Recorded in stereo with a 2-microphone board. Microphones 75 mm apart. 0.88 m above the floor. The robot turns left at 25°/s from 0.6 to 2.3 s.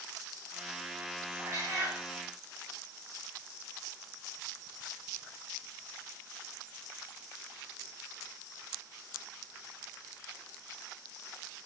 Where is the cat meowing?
50° right (ahead or behind), 1.8 m; by 2.0 s 35° right (ahead or behind), 1.8 m.